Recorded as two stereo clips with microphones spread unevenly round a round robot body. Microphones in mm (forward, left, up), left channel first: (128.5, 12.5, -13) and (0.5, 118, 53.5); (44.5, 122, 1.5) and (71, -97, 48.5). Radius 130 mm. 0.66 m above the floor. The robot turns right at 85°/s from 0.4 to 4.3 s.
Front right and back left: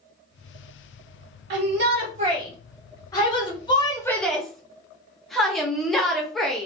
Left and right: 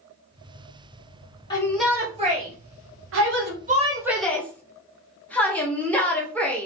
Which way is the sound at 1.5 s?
150° left.